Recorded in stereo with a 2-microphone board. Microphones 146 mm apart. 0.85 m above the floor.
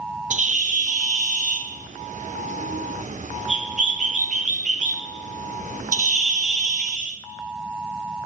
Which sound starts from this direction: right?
A bird, at 0.3 s.